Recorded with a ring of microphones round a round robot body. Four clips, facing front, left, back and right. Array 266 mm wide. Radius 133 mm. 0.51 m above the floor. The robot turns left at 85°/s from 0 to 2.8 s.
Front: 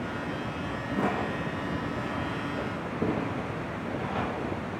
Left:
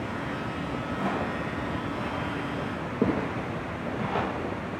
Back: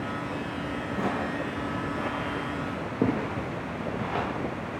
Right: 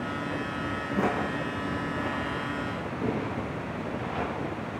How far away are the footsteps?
About 1.7 m.